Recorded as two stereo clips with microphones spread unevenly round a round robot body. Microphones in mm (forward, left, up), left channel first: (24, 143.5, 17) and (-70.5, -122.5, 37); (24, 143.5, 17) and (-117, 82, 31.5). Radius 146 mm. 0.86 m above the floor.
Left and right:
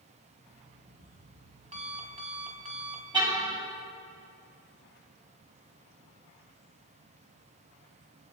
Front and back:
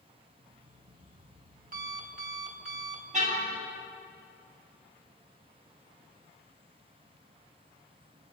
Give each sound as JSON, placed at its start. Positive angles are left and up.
{"t": 0.4, "sound": "an alarm clock", "azimuth_deg": -175, "distance_m": 4.0}
{"t": 3.1, "sound": "a car horn", "azimuth_deg": 175, "distance_m": 9.0}